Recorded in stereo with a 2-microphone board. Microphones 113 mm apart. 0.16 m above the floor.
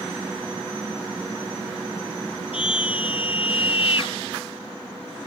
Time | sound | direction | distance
2.5 | a scream | 60° left (ahead or behind) | ?